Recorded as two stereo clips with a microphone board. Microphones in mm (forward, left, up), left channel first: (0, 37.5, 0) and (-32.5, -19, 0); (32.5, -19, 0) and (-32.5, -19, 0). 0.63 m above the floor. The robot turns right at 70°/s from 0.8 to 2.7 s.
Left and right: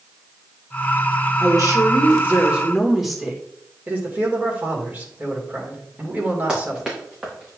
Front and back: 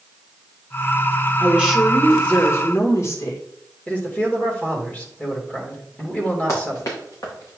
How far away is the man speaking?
About 2.5 m.